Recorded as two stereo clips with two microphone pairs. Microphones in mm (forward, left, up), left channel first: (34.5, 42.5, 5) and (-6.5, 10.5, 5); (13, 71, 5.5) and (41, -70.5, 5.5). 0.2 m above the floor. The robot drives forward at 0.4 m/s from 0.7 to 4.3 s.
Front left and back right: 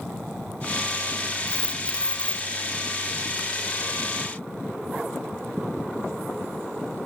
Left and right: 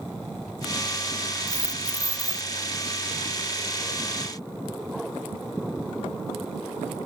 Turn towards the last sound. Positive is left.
turn(degrees=-40)